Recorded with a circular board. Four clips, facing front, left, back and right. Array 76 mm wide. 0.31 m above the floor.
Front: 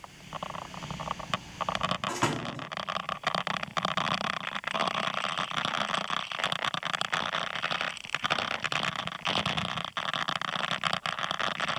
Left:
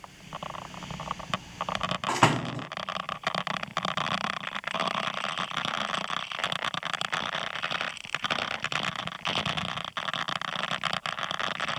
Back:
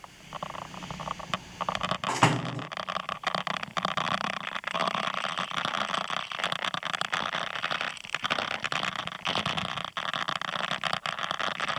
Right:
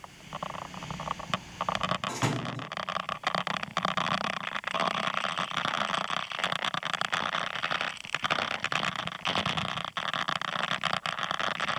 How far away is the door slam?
About 1.3 m.